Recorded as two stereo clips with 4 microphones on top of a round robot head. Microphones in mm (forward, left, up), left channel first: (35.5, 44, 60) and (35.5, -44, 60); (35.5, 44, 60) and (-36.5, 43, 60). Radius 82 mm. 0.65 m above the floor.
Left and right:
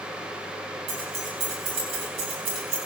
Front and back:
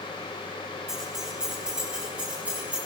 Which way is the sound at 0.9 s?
95° right.